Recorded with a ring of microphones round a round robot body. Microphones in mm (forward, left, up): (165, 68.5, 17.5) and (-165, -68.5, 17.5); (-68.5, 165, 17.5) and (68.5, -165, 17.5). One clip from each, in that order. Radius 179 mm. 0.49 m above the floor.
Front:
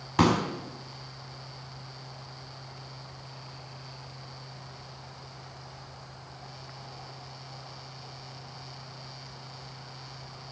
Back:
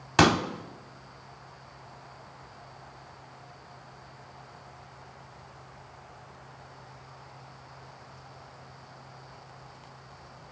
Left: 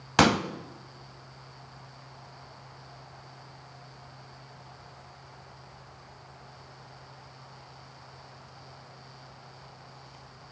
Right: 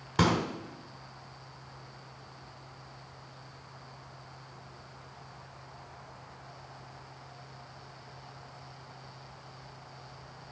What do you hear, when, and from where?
0.2 s a pop: 145° left, 0.8 m